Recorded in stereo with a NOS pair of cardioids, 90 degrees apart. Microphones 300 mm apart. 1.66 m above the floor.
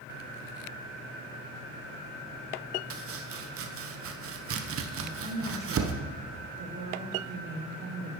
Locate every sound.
2.9 s chopping: 50° right, 1.0 m
5.0 s a woman speaking: 50° right, 3.5 m